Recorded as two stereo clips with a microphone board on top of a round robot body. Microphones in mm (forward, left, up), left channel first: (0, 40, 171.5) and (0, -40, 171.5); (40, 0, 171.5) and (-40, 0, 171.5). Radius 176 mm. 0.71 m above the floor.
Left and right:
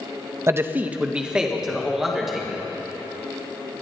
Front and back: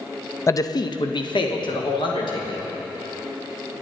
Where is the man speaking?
45° right, 0.8 m; by 2.6 s 5° right, 3 m.